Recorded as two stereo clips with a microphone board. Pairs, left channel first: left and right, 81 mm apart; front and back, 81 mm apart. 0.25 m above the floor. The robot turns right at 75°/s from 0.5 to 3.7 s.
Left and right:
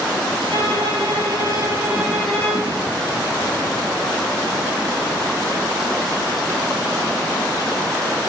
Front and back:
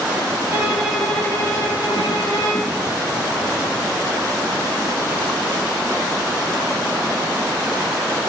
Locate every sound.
0.5 s a violin: 125° right, 2.5 m; by 2.8 s 40° left, 2.5 m